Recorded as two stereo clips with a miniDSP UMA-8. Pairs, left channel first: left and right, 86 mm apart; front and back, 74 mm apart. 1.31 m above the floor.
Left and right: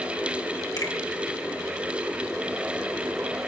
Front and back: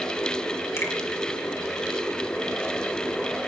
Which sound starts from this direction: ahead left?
A finger snap, at 0.8 s.